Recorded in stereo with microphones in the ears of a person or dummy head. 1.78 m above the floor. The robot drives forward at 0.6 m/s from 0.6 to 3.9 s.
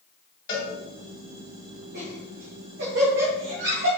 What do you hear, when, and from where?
0.5 s a cowbell: 25° left (ahead or behind), 4 m
1.9 s laughter: 50° right (ahead or behind), 3 m; by 3.9 s 70° right (ahead or behind), 2.5 m